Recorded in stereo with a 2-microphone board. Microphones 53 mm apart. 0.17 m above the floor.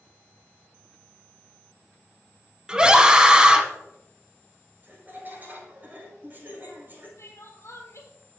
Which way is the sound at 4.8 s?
35° right (ahead or behind).